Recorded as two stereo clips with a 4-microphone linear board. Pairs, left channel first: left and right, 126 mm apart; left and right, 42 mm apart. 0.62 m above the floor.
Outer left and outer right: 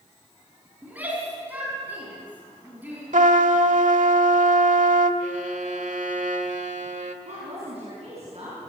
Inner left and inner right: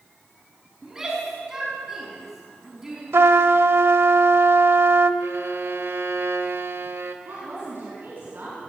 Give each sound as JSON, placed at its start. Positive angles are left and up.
{"t": 0.8, "sound": "a shout", "side_deg": -15, "distance_m": 5.5}
{"t": 3.1, "sound": "a trumpet", "side_deg": -90, "distance_m": 1.1}
{"t": 5.2, "sound": "a violin", "side_deg": -80, "distance_m": 1.5}
{"t": 7.2, "sound": "a woman speaking", "side_deg": -55, "distance_m": 7.0}